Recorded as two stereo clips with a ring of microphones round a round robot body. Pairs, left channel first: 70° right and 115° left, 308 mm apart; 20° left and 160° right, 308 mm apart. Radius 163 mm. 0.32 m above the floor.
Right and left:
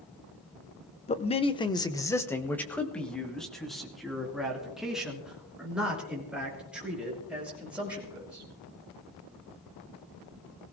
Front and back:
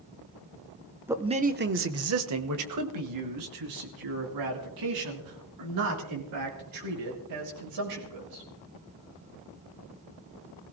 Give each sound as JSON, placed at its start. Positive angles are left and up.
{"t": 1.1, "sound": "a man speaking", "azimuth_deg": -85, "distance_m": 0.8}